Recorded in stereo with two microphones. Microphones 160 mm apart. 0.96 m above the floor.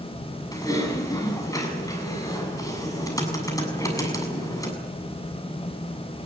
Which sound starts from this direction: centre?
Typing on a keyboard, at 0.5 s.